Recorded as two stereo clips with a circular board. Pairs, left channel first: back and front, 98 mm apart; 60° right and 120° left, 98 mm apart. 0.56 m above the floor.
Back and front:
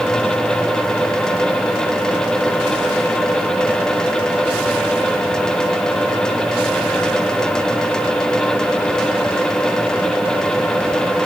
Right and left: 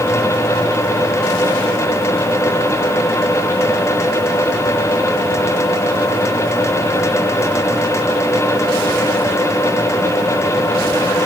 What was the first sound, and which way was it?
Only background noise.